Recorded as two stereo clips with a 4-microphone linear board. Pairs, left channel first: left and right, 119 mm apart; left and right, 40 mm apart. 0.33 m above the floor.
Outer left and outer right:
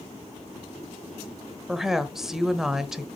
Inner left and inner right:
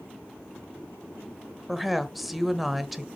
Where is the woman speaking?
5° right (ahead or behind), 1.0 m.